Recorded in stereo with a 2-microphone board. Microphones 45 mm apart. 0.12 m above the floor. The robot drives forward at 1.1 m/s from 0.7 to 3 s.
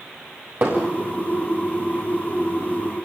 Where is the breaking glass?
I don't hear breaking glass.